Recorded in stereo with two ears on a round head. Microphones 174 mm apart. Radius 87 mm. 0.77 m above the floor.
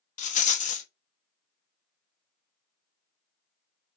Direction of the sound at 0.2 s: 40° left (ahead or behind).